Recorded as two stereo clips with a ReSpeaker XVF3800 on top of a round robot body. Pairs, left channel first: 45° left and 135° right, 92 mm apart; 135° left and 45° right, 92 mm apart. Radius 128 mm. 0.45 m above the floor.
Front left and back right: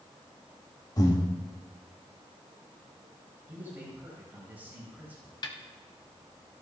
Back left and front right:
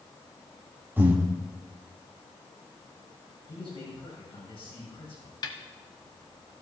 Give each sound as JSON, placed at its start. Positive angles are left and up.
{"t": 1.0, "sound": "breathing", "azimuth_deg": 15, "distance_m": 1.9}
{"t": 3.5, "sound": "a man speaking", "azimuth_deg": 155, "distance_m": 6.0}
{"t": 5.4, "sound": "a snare drum", "azimuth_deg": 90, "distance_m": 0.9}